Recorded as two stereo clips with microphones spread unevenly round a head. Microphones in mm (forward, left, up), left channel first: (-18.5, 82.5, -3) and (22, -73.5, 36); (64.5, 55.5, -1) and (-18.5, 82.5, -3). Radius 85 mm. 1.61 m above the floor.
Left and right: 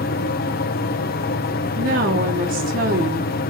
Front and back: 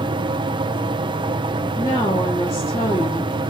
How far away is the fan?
About 0.8 m.